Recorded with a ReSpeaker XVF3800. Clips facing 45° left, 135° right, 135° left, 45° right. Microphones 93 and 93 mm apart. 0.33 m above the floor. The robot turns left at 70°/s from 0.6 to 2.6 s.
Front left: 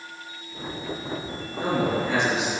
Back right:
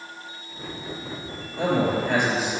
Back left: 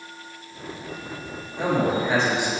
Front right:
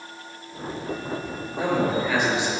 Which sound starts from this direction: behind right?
A man speaking, at 1.6 s.